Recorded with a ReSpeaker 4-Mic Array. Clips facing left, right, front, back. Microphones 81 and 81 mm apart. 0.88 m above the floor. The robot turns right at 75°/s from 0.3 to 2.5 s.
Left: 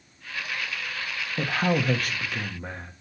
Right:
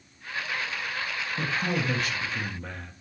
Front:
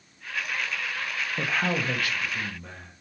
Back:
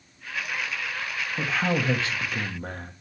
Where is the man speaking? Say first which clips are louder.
Left 5 dB, back 2 dB; 70° left, 1.1 m; by 2.9 s 155° left, 1.1 m.